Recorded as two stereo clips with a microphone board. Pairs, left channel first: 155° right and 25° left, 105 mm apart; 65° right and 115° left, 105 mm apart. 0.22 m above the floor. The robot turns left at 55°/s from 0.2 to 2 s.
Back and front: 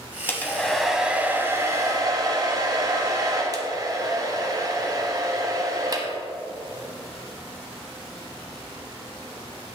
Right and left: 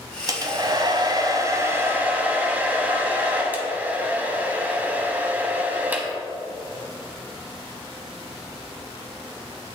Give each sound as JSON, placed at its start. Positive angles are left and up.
{"t": 0.3, "sound": "a hair dryer", "azimuth_deg": 140, "distance_m": 0.9}